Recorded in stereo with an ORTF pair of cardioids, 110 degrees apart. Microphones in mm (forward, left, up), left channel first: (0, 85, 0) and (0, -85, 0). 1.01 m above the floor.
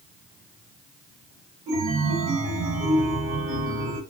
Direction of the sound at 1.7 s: 60° right.